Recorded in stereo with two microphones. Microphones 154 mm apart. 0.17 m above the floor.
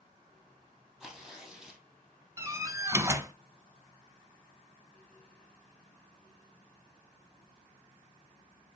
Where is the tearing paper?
Centre (ahead or behind), 2.5 m.